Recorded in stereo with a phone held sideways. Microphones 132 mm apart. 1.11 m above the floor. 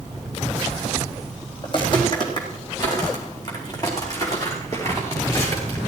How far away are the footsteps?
About 4 m.